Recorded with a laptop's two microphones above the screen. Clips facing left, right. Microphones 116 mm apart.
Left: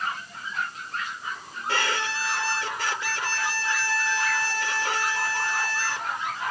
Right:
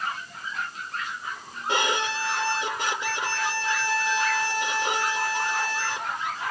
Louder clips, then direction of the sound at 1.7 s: Right 2 dB; 20° right (ahead or behind).